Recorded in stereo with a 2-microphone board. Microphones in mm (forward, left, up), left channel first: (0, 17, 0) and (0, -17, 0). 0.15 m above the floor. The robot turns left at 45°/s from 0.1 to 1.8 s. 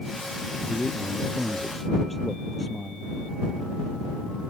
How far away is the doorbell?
I don't hear a doorbell.